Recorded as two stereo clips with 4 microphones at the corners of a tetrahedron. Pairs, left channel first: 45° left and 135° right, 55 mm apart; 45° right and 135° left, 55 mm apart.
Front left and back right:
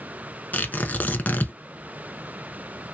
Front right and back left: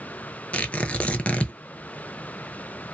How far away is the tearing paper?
About 0.7 m.